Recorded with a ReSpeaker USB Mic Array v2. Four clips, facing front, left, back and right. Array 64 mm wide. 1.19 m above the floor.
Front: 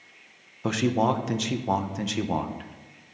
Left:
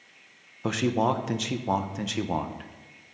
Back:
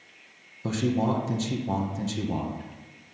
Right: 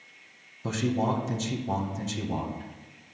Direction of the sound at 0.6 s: 50° left.